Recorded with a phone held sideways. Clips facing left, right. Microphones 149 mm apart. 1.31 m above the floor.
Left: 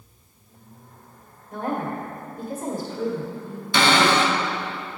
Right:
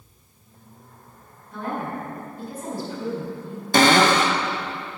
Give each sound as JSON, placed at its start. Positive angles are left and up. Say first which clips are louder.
{"t": 1.5, "sound": "a woman speaking", "louder": "left 2 dB", "side_deg": 45, "distance_m": 1.7}
{"t": 3.7, "sound": "a cupboard door", "louder": "right 3 dB", "side_deg": -45, "distance_m": 0.5}